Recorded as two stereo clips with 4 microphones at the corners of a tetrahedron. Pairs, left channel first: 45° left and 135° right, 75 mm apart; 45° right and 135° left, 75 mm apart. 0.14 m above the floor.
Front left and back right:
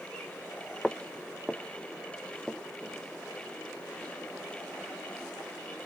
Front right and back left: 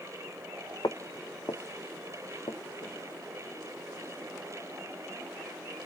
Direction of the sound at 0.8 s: 35° right.